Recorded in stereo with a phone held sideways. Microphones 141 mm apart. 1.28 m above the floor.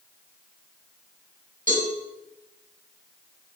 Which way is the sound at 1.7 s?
75° right (ahead or behind).